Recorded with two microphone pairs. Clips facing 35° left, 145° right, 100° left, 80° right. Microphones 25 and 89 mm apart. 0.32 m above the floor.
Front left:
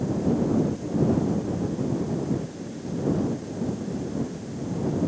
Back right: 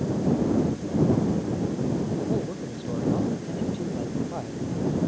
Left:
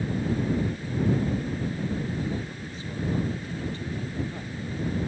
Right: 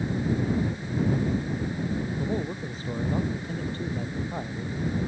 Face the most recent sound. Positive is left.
turn(degrees=-130)